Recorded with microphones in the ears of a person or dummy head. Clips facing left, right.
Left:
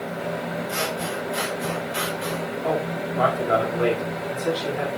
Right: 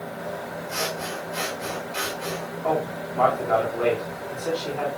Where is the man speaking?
20° left (ahead or behind), 3.5 m.